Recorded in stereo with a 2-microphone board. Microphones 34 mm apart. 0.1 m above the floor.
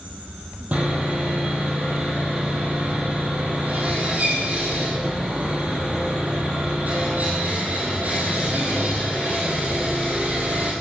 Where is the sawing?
45° right (ahead or behind), 3.5 m.